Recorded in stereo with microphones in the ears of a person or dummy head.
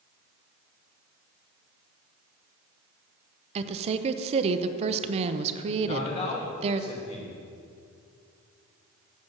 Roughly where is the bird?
No bird in this recording.